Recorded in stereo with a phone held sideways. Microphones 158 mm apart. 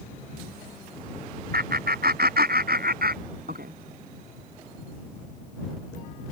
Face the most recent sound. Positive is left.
turn(degrees=-75)  # may be behind; listen again after turning